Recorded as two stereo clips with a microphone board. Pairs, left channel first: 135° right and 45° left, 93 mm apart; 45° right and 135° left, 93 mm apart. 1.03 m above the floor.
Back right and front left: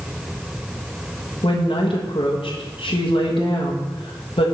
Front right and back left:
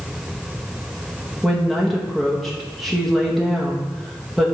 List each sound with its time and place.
1.4 s a woman speaking: 135° right, 1.3 m